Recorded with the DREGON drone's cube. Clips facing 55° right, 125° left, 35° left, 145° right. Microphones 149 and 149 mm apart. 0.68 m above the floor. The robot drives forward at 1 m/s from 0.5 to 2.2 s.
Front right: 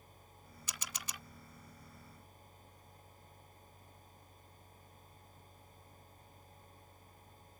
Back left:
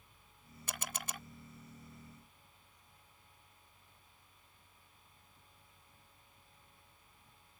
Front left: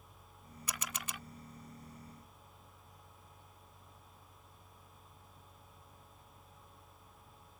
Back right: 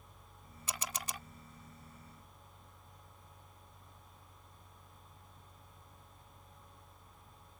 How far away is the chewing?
I don't hear chewing.